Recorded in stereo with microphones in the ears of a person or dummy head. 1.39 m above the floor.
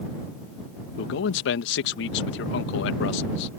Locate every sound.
1.0 s a man speaking: 75° left (ahead or behind)